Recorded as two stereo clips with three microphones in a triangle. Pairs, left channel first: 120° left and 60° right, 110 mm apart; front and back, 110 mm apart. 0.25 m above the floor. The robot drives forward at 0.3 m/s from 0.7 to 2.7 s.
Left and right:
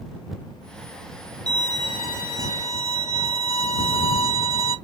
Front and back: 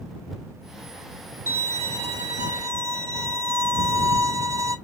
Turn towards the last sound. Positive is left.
turn(degrees=-125)